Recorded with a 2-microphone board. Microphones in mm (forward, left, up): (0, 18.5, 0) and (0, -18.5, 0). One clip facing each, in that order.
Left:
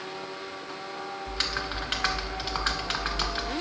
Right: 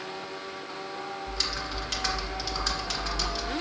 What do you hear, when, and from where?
1.3 s typing on a keyboard: 35° left (ahead or behind), 0.6 m